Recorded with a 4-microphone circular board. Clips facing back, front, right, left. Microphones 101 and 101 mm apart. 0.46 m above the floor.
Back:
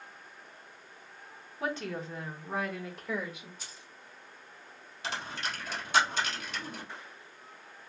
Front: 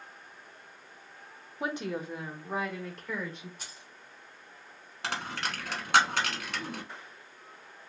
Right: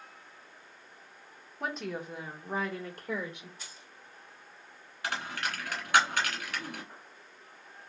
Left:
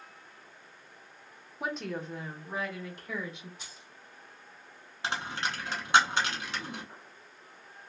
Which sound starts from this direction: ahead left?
A dropped coin, at 5.0 s.